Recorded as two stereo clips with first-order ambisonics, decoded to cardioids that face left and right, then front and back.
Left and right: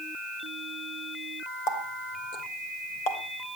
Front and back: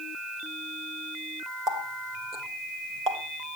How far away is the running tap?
About 2.5 m.